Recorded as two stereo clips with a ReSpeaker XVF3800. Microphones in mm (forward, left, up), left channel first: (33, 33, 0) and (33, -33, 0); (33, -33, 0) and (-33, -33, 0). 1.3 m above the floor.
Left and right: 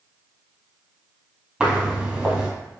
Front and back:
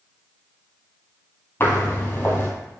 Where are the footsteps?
30° right, 1.4 m.